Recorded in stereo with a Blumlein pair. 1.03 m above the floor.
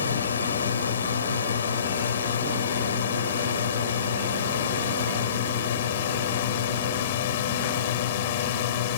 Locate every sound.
0.0 s a drone: 70° left; by 9.0 s 55° left